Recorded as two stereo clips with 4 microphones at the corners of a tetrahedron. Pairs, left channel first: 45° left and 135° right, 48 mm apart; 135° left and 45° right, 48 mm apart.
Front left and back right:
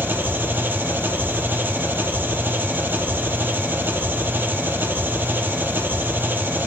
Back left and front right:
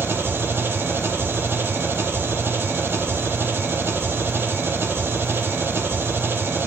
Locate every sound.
0.0 s an engine running: 85° right, 1.7 m